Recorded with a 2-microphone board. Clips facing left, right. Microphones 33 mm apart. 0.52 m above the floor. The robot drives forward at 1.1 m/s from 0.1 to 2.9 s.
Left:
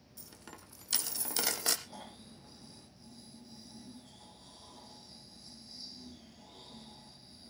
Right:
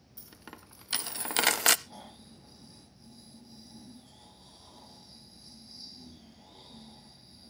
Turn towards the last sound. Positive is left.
turn(degrees=-15)  # may be behind; listen again after turning